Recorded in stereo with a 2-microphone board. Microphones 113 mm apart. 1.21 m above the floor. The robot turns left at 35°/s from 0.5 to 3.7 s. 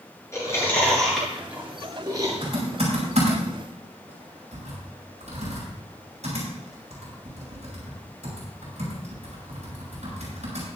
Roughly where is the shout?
I don't hear a shout.